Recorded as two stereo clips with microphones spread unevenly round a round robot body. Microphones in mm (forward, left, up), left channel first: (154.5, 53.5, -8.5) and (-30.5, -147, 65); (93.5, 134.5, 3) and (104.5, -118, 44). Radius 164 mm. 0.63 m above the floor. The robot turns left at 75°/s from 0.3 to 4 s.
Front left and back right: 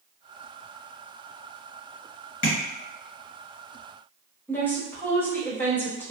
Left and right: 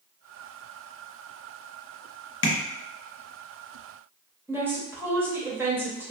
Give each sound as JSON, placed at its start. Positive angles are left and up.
{"t": 2.4, "sound": "tapping", "azimuth_deg": 80, "distance_m": 1.4}
{"t": 4.5, "sound": "a woman speaking", "azimuth_deg": 5, "distance_m": 1.0}